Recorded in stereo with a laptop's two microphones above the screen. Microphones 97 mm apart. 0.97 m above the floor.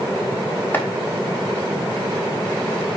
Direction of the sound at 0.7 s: 20° left (ahead or behind).